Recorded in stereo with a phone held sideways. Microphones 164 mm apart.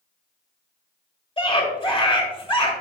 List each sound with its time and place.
1.4 s a scream: 30° left (ahead or behind), 1.9 m